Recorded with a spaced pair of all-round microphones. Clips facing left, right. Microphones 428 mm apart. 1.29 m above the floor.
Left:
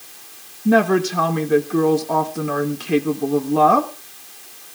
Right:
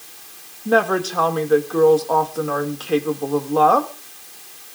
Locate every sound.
0.7 s a woman speaking: 40° left (ahead or behind), 1.4 m